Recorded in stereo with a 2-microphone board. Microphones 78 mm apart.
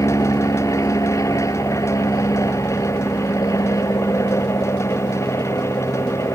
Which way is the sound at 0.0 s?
45° left (ahead or behind).